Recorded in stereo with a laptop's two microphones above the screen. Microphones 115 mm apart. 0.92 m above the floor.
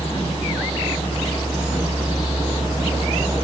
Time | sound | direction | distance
0.0 | a fan | 60° left (ahead or behind) | 1.7 m